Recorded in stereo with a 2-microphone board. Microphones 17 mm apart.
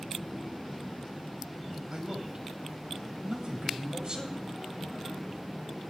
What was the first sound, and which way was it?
A man speaking, 60° right (ahead or behind).